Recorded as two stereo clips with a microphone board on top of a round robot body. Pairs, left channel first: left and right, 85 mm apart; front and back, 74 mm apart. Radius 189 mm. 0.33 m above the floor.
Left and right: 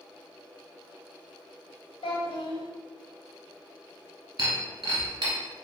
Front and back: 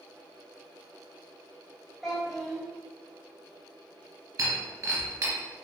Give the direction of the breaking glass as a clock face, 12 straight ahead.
4 o'clock.